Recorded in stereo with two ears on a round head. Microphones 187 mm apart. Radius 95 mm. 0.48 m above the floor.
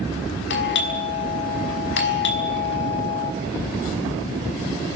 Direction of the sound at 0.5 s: 55° left (ahead or behind).